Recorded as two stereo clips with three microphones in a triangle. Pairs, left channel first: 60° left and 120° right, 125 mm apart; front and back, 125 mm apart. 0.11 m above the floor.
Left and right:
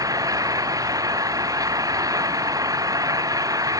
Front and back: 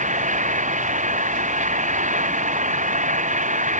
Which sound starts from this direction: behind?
An engine running, at 0.0 s.